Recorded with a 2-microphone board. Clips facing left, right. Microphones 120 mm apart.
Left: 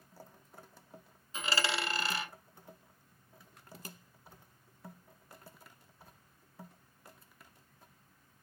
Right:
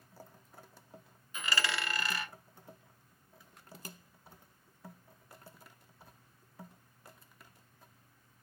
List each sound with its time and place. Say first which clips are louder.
1.3 s a dropped coin: left 1 dB; 30° left (ahead or behind), 0.8 m